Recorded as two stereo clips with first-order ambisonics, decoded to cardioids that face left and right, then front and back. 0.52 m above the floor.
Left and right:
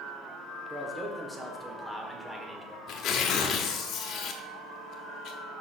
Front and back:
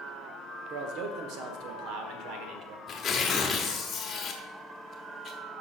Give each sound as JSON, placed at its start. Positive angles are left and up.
{"t": 0.7, "sound": "a man speaking", "azimuth_deg": -175, "distance_m": 1.3}
{"t": 2.9, "sound": "tearing paper", "azimuth_deg": 60, "distance_m": 1.0}